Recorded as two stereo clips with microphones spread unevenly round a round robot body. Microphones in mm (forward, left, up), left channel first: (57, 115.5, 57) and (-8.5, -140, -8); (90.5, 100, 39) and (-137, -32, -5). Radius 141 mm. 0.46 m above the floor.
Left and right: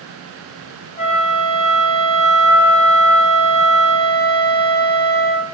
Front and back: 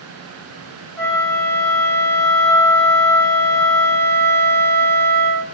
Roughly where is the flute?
Ahead.